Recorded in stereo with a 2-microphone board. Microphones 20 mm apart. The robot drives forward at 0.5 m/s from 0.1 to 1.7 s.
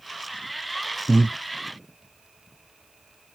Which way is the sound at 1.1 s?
15° right (ahead or behind).